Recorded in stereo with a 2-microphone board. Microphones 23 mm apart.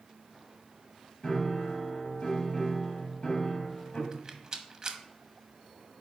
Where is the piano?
35° left (ahead or behind), 1.5 m.